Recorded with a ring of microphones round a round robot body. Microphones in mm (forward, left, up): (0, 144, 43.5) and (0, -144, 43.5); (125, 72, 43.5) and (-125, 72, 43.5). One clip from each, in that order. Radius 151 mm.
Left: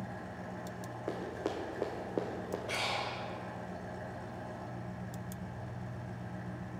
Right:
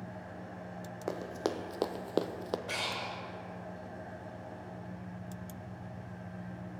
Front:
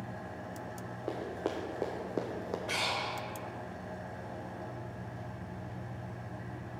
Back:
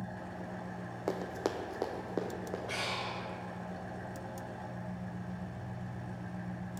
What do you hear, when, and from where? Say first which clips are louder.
0.0 s an engine running: left 2 dB, front 1 dB; 125° left, 1.9 m
1.1 s running footsteps: right 3 dB, back 1 dB; 150° right, 0.8 m; by 2.6 s 70° right, 0.6 m
2.7 s breathing: left 3 dB, front 4 dB; 45° right, 1.3 m